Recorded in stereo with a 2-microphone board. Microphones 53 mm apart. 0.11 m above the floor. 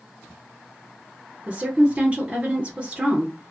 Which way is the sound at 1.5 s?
25° right (ahead or behind).